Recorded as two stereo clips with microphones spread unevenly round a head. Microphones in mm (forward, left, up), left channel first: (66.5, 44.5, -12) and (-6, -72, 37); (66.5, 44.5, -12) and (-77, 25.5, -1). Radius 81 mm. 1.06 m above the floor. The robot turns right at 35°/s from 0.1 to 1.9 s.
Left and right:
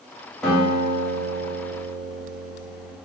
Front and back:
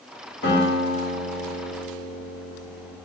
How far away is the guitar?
About 1.9 m.